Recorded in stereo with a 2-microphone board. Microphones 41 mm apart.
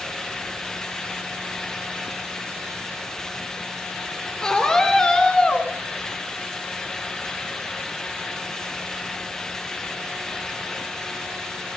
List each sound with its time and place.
4.4 s a scream: 15° left (ahead or behind), 3.5 m; by 5.7 s 25° left (ahead or behind), 1.9 m